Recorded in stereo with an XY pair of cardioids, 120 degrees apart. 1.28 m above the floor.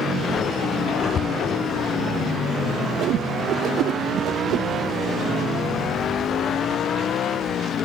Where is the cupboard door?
45° left.